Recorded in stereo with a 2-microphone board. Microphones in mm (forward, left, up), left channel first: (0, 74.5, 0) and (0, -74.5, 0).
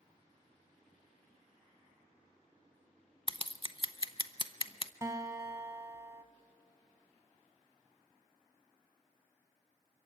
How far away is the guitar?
About 1.2 m.